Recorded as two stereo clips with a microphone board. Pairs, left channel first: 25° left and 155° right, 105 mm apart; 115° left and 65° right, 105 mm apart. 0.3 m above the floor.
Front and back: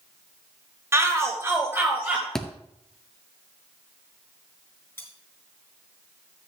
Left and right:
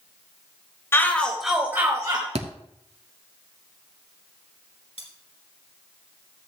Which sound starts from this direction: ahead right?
A thud, at 2.4 s.